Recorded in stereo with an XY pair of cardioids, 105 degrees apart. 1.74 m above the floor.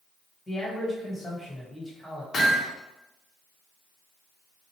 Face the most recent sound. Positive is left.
turn(degrees=50)